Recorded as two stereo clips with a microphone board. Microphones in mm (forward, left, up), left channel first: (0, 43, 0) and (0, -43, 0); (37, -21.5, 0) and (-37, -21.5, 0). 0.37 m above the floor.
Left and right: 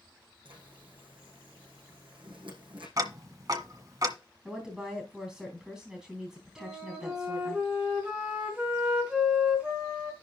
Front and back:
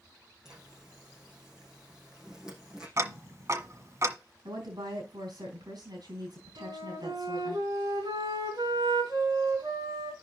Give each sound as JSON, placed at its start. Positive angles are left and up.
{"t": 0.5, "sound": "a zipper", "azimuth_deg": -100, "distance_m": 5.0}
{"t": 3.0, "sound": "ticking", "azimuth_deg": -130, "distance_m": 1.4}
{"t": 4.5, "sound": "a woman speaking", "azimuth_deg": -175, "distance_m": 3.5}
{"t": 6.6, "sound": "a flute", "azimuth_deg": -165, "distance_m": 3.5}